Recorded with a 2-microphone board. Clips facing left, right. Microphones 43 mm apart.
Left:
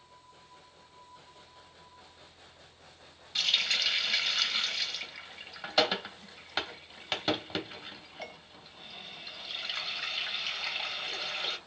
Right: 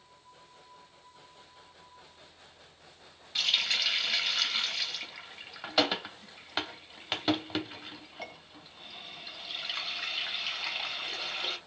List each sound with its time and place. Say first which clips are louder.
3.4 s a running tap: even; 5° right (ahead or behind), 0.6 m